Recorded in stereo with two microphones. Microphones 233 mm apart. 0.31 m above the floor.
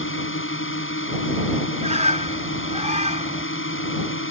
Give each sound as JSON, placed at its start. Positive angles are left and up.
{"t": 0.0, "sound": "a drone", "side_deg": 60}
{"t": 1.8, "sound": "a bird", "side_deg": -30}